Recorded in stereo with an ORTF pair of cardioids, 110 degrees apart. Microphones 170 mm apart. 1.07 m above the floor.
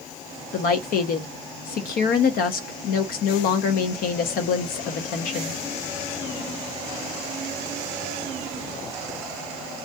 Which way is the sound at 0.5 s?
60° left.